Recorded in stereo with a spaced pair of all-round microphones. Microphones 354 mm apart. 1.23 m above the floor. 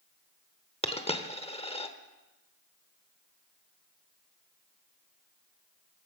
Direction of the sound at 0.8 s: 15° left (ahead or behind).